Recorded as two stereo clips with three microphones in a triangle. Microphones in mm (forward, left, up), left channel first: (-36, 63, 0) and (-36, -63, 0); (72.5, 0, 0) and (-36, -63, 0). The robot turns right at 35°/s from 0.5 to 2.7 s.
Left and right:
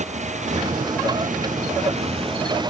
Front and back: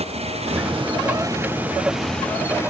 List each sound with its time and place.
0.0 s a motorcycle: 115° right; by 2.7 s 35° right